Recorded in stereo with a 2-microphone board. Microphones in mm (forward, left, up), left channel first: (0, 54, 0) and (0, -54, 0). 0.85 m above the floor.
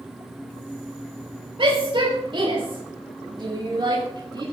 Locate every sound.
1.6 s a shout: 55° right (ahead or behind), 4.5 m; by 4.4 s 40° right (ahead or behind), 5.5 m